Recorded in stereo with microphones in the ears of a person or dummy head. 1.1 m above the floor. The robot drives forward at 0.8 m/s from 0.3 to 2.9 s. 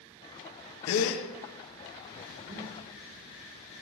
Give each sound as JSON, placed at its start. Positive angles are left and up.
{"t": 0.9, "sound": "a gasp", "side_deg": 75, "distance_m": 1.2}
{"t": 2.4, "sound": "breathing", "side_deg": -30, "distance_m": 1.4}